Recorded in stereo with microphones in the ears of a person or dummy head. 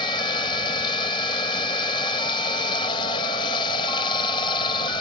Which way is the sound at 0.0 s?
20° left (ahead or behind).